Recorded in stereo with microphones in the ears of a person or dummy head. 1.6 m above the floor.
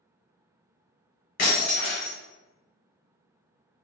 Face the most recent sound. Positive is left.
turn(degrees=30)  # may be behind; listen again after turning